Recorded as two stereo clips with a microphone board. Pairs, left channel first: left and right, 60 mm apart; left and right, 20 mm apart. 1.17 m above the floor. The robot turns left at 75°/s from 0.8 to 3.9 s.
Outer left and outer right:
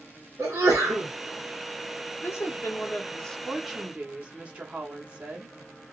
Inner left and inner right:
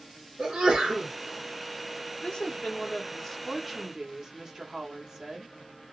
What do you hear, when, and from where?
0.4 s a sneeze: 65° right (ahead or behind), 1.8 m; by 1.1 s 50° right (ahead or behind), 1.8 m
2.2 s a woman speaking: 95° left, 0.8 m; by 5.5 s 30° right, 0.8 m